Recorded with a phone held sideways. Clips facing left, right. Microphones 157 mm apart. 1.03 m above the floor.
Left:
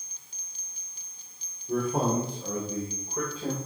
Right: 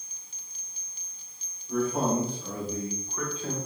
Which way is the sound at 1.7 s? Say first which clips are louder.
Even; 50° left (ahead or behind).